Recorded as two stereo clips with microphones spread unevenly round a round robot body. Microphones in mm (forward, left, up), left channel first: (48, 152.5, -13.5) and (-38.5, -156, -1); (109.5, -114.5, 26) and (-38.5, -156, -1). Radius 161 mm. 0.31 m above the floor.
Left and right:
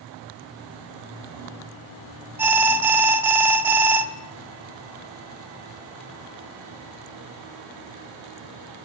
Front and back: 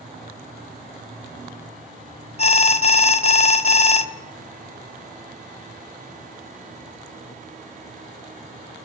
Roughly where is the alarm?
Ahead right.